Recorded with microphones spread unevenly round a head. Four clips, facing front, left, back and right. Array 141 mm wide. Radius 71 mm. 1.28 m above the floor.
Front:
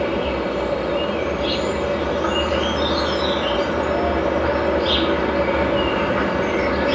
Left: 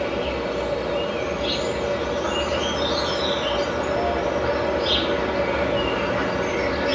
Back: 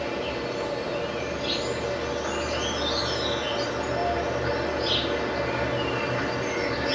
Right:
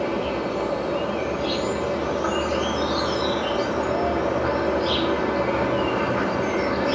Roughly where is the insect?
Ahead.